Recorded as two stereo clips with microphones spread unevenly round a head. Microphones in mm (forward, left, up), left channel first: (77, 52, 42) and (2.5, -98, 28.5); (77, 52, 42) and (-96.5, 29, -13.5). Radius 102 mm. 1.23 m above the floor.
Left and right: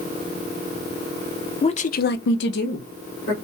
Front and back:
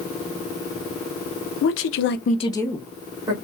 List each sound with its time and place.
1.6 s a woman speaking: 5° left, 0.7 m; by 3.3 s 120° left, 1.0 m